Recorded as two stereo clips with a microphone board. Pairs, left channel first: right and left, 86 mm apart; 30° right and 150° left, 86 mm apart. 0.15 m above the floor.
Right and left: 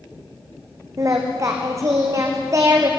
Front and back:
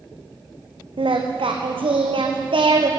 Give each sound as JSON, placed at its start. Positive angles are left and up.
{"t": 1.0, "sound": "singing", "azimuth_deg": 145, "distance_m": 2.0}